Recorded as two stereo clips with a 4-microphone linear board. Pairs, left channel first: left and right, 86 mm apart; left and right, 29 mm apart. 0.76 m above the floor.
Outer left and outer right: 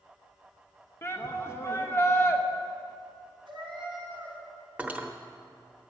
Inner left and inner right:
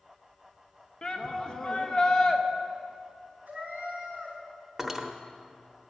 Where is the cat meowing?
70° right (ahead or behind), 2.5 m.